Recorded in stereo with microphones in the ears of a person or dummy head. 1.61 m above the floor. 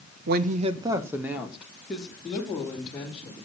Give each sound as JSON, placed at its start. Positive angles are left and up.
{"t": 0.3, "sound": "a woman speaking", "side_deg": -60, "distance_m": 0.8}